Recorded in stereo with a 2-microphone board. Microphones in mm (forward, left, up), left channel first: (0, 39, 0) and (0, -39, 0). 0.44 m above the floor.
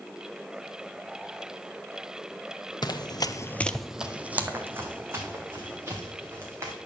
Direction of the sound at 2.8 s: 60° left (ahead or behind).